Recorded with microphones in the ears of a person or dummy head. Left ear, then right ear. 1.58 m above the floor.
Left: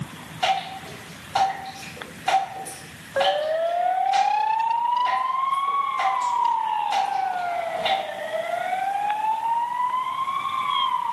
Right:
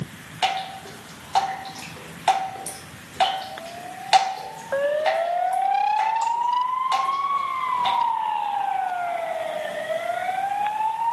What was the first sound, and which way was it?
Dripping, 30° right (ahead or behind).